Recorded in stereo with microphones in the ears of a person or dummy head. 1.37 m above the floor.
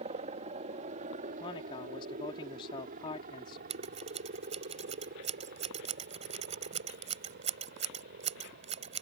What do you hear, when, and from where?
0.0 s a helicopter: 40° right (ahead or behind); by 9.0 s 60° right (ahead or behind)
1.4 s a man speaking: 25° left (ahead or behind)
3.7 s scissors: 30° right (ahead or behind)